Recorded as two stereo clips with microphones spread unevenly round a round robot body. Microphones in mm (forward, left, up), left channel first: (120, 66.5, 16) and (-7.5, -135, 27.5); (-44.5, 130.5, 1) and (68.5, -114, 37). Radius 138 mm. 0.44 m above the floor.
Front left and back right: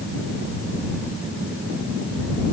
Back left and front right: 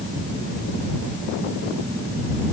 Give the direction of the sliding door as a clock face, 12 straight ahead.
I don't hear a sliding door.